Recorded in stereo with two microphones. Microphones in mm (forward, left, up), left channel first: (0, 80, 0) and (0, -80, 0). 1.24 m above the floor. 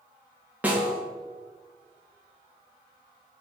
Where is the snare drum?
10° right (ahead or behind), 1.5 m.